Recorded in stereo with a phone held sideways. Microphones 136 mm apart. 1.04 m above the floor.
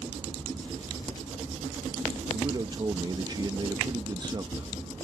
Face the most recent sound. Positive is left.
turn(degrees=-30)  # may be behind; listen again after turning